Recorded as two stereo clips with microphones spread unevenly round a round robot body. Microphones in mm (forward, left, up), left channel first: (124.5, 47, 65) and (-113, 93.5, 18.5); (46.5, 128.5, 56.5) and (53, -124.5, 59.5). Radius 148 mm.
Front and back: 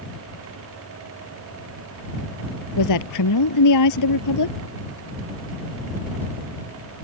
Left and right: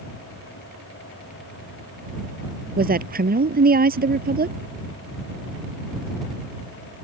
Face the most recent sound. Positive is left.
turn(degrees=-35)